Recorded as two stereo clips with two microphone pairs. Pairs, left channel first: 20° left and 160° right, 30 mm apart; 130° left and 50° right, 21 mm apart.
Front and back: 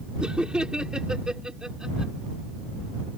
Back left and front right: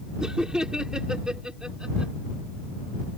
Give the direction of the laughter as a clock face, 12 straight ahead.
4 o'clock.